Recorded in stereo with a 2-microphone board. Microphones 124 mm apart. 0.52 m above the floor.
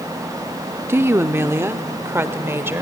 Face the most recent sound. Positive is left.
turn(degrees=-20)  # may be behind; listen again after turning